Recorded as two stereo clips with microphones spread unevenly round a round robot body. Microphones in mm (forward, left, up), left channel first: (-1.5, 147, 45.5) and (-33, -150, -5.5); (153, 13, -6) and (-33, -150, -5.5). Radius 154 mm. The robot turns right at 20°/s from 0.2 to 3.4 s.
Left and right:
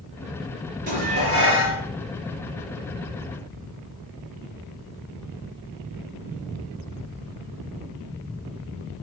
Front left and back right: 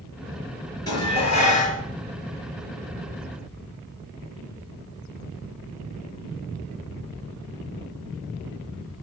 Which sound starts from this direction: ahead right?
Dishes clattering, at 0.9 s.